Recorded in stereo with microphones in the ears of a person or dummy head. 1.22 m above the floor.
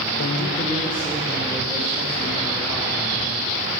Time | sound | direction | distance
0.2 | a man speaking | 55° left (ahead or behind) | 0.8 m